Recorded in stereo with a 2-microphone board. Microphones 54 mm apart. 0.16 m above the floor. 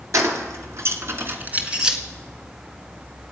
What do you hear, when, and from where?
0.1 s keys jangling: 60° right (ahead or behind), 2 m; by 2.0 s 10° right (ahead or behind), 1.6 m